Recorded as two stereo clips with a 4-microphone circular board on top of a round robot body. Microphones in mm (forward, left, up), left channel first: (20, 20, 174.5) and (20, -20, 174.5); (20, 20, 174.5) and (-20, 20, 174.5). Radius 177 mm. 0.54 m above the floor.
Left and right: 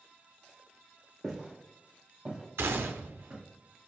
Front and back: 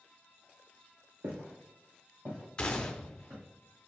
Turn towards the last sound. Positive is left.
turn(degrees=-70)